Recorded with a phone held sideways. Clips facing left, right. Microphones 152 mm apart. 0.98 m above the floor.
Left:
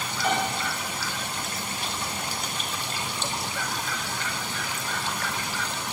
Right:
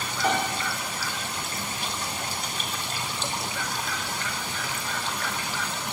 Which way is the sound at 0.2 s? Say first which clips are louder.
Right 1 dB; 45° right (ahead or behind).